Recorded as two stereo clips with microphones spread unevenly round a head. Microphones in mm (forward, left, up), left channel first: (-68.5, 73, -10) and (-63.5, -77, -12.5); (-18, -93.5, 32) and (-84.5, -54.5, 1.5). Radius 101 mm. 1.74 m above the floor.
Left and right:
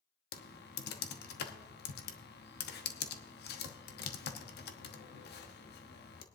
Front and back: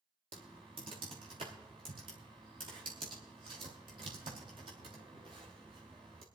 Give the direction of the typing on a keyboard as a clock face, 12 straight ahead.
9 o'clock.